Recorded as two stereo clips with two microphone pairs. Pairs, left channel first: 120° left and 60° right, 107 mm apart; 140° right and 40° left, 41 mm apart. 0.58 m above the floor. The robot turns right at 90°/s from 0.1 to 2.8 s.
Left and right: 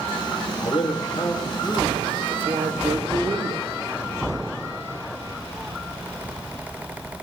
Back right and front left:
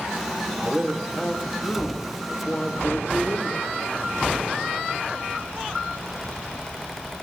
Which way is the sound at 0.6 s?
105° left.